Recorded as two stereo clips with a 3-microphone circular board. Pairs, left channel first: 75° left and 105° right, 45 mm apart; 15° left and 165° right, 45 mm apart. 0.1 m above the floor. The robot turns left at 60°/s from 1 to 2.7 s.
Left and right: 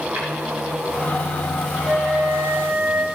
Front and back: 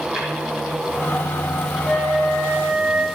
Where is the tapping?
100° right, 5 m.